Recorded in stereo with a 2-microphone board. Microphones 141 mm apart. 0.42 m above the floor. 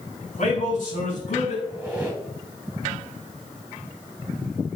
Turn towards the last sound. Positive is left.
turn(degrees=-10)  # may be behind; listen again after turning